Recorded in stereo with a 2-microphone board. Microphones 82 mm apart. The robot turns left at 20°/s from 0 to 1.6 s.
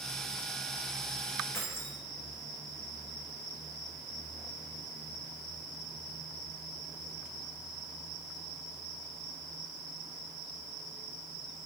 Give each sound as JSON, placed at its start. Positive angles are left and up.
{"t": 1.5, "sound": "keys jangling", "side_deg": 30, "distance_m": 7.0}